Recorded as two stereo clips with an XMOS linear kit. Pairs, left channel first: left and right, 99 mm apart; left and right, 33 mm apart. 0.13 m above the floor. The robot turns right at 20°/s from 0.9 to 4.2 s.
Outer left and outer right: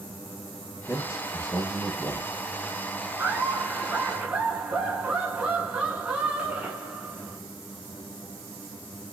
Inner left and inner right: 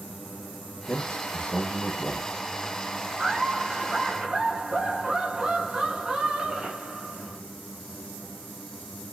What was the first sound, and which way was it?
A man speaking, 30° left (ahead or behind).